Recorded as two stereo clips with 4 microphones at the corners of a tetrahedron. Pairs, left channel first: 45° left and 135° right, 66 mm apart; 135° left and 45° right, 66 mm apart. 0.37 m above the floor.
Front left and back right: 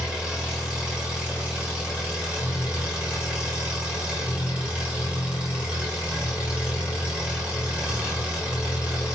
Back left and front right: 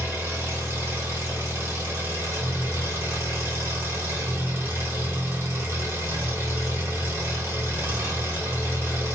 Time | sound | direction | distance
0.0 | an engine running | 70° right | 1.4 m